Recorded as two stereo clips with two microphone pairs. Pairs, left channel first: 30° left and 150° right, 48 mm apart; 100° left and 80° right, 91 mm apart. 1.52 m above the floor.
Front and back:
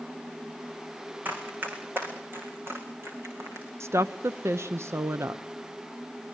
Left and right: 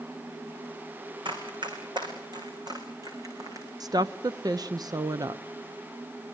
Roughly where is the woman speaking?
Behind right.